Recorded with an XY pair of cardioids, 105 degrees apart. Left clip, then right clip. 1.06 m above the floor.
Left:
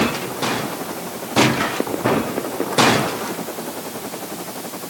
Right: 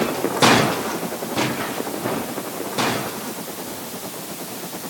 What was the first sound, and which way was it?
Only background noise.